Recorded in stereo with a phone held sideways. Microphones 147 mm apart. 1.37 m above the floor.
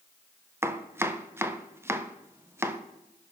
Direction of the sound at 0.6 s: 15° right (ahead or behind).